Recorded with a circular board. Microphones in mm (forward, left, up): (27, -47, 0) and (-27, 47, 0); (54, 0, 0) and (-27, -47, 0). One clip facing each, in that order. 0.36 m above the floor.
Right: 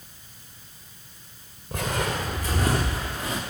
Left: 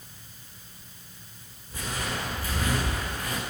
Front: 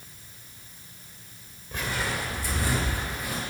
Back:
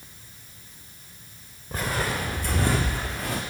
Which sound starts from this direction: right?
Footsteps, at 1.7 s.